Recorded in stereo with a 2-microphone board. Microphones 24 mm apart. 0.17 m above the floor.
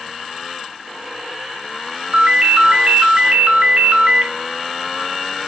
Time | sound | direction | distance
2.1 | a ringtone | 50° right (ahead or behind) | 0.8 m